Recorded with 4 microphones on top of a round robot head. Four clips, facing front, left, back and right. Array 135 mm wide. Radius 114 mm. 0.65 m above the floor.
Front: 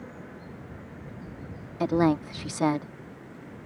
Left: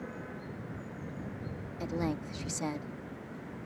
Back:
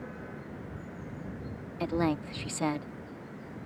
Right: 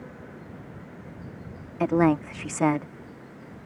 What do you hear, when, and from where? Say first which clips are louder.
1.8 s a woman speaking: right 13 dB, front 6 dB; 60° right